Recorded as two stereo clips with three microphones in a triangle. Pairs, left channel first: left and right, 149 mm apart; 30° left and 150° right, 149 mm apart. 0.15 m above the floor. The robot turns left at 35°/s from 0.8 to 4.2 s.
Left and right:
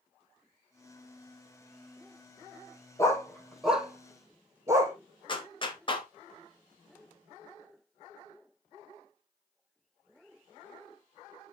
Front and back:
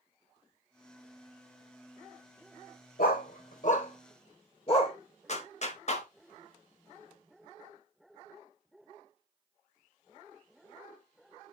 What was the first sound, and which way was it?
A dog barking, 25° left.